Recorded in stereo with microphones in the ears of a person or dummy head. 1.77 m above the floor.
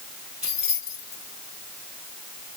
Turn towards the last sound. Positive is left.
turn(degrees=-10)  # may be behind; listen again after turning